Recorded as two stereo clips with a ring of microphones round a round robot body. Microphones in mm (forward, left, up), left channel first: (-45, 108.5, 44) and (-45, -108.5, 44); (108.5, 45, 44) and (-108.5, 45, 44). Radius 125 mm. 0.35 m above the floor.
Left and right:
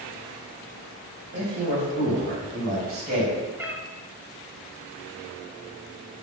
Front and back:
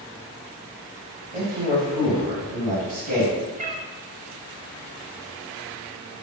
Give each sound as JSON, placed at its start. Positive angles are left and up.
{"t": 1.3, "sound": "a man speaking", "azimuth_deg": -105, "distance_m": 1.9}
{"t": 3.6, "sound": "a cat meowing", "azimuth_deg": -165, "distance_m": 0.6}